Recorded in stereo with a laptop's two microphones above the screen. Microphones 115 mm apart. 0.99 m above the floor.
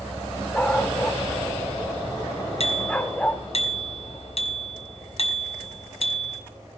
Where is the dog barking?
10° left (ahead or behind), 1.3 m.